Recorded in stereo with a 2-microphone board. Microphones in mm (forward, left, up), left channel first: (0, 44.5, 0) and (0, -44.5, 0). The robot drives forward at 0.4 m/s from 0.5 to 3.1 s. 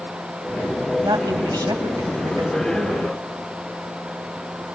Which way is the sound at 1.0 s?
40° right (ahead or behind).